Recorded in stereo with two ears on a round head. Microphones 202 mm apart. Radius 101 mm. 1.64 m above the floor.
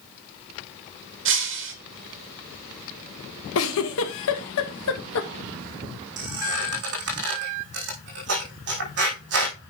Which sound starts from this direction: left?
A giggle, at 3.5 s.